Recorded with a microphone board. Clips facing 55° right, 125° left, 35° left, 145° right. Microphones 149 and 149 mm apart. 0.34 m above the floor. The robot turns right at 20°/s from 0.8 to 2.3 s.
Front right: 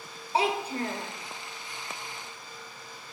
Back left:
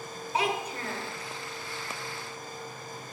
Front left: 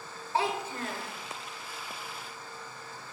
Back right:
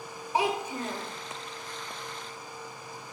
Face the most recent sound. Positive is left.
turn(degrees=-50)